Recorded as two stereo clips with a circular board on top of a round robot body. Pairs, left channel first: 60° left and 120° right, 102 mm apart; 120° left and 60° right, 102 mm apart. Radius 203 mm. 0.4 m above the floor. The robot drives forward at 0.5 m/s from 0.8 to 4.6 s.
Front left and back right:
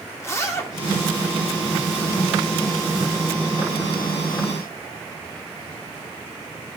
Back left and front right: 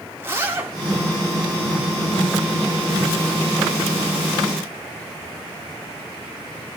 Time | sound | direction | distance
0.2 | a zipper | straight ahead | 2.5 m